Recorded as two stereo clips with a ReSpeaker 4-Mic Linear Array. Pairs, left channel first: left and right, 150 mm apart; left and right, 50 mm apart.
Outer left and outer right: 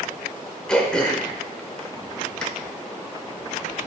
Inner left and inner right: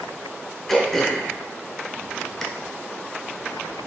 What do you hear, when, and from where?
0.7 s throat clearing: 5° left (ahead or behind), 0.5 m